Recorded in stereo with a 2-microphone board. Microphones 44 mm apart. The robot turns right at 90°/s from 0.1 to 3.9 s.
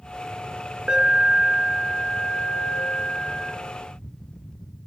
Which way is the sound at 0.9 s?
25° right (ahead or behind).